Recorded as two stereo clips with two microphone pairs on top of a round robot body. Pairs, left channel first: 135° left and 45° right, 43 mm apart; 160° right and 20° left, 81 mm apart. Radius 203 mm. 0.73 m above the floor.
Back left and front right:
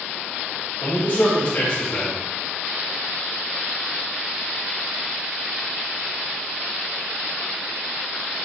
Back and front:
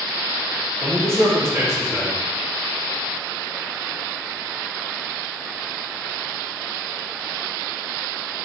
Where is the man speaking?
75° left, 2.5 m.